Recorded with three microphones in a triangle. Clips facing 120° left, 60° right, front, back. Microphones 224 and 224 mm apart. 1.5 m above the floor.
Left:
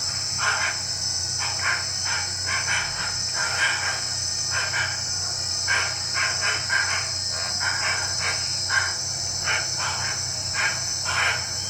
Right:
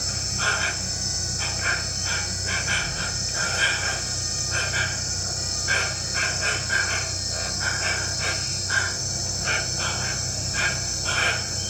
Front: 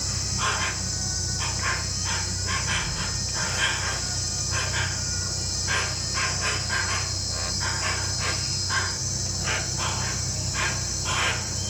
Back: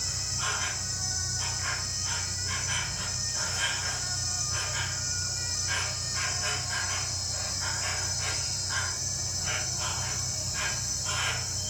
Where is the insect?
Straight ahead, 0.9 m.